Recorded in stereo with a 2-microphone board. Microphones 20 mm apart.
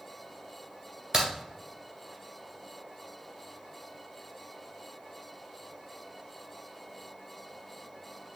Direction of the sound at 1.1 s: 30° right (ahead or behind).